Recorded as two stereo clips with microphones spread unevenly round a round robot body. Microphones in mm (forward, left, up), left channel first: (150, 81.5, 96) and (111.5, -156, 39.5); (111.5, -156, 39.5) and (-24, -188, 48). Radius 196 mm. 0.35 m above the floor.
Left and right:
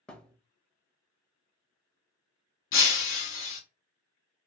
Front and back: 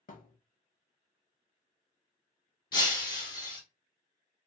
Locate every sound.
0.1 s a thud: 10° right, 0.8 m
2.7 s breaking glass: 45° left, 0.8 m